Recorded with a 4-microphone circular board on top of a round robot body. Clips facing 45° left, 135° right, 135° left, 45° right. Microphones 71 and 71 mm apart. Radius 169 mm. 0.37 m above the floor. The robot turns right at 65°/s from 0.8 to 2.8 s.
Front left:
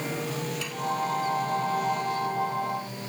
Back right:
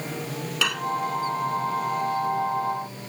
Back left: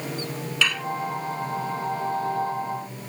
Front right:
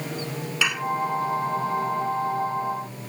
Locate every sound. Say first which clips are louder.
0.6 s dishes clattering: back right 6 dB, even; 120° right; by 0.9 s 115° right